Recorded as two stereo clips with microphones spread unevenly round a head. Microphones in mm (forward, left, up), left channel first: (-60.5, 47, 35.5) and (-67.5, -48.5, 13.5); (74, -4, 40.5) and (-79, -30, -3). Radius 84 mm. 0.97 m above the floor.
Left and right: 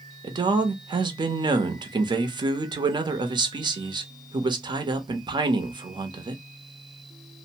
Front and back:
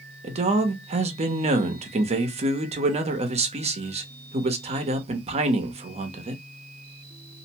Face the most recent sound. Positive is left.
turn(degrees=-130)